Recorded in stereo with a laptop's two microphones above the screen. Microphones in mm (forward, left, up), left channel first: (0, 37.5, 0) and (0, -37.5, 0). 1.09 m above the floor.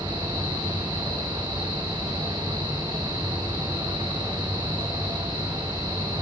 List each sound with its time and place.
0.0 s a fan: 85° right, 9.5 m